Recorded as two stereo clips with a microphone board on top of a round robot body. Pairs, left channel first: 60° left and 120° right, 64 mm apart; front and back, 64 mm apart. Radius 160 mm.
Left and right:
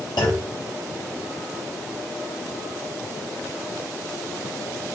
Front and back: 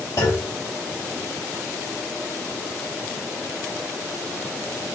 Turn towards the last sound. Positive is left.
turn(degrees=45)